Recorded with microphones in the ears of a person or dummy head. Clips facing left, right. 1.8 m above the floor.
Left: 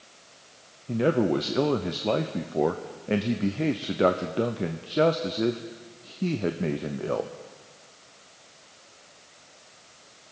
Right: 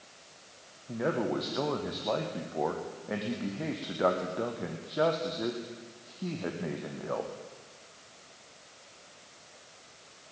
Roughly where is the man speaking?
Left.